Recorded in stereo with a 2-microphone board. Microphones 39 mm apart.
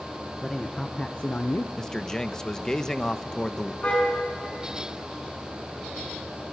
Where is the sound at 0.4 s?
10° left (ahead or behind), 1.6 m; by 1.7 s 60° left (ahead or behind), 0.9 m.